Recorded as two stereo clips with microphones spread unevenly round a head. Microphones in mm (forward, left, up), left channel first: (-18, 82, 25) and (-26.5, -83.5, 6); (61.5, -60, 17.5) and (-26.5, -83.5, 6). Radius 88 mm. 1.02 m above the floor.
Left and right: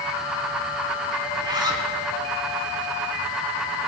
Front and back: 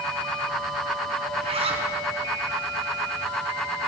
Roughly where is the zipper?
Behind.